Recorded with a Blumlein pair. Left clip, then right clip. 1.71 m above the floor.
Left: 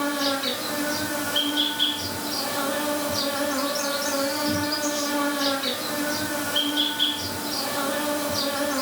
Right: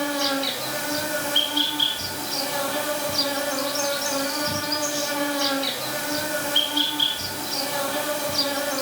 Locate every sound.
0.0 s an insect: 10° right, 0.7 m